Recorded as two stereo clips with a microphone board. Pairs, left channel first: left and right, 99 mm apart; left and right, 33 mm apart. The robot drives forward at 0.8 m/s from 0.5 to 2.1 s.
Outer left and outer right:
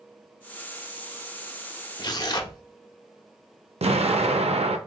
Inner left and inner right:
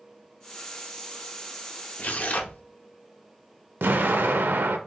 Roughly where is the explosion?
Right.